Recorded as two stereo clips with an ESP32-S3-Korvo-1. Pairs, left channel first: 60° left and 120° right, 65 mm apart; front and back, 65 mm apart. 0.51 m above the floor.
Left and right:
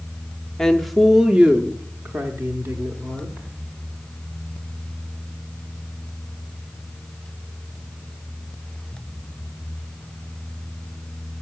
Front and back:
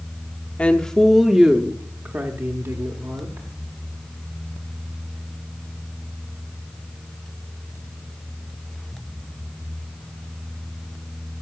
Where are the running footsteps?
No running footsteps in this recording.